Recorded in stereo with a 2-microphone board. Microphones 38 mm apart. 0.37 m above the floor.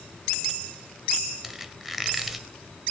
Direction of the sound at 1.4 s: 5° right (ahead or behind).